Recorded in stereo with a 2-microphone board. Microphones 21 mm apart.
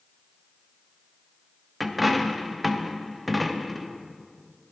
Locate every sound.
1.8 s a dropped coin: centre (ahead or behind), 0.6 m